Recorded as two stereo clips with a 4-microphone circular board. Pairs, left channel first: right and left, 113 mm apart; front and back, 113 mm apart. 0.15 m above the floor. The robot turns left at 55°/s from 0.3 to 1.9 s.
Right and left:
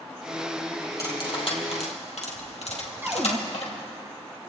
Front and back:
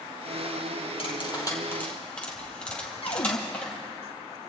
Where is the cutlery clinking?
30° right, 2.5 m; by 3.7 s 80° right, 2.5 m.